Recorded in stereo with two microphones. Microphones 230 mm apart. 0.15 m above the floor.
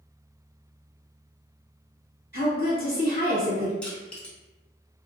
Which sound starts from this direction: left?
A woman speaking, at 2.3 s.